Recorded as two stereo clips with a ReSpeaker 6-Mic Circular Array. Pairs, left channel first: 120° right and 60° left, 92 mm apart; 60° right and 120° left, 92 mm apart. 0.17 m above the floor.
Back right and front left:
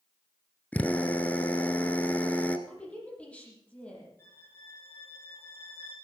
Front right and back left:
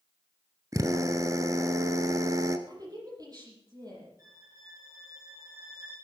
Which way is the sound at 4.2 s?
175° left.